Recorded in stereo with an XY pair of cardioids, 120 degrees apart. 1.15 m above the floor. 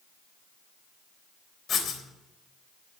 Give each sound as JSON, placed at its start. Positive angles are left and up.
{"t": 1.7, "sound": "writing", "azimuth_deg": 45, "distance_m": 3.5}